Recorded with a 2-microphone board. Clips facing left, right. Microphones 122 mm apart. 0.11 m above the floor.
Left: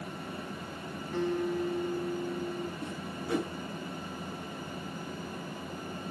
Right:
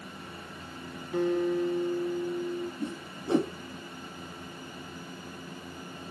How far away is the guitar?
About 3 m.